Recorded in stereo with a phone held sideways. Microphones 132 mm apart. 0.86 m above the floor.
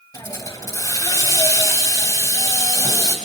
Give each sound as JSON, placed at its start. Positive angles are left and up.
{"t": 0.1, "sound": "a hiss", "side_deg": 30, "distance_m": 3.0}